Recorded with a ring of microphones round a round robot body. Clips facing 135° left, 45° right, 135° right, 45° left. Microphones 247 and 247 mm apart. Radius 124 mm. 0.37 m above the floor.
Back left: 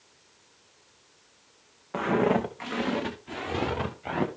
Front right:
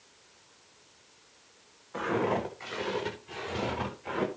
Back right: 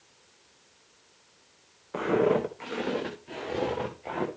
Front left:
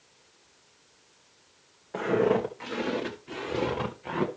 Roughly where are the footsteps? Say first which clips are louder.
Back left 5 dB, even; behind left.